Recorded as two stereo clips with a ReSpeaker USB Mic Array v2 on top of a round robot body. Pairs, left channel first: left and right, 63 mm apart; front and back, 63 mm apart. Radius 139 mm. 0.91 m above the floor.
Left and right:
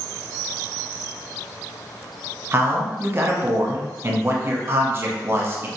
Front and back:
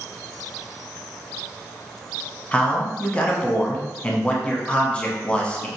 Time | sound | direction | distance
2.5 | a man speaking | 60° right | 1.0 m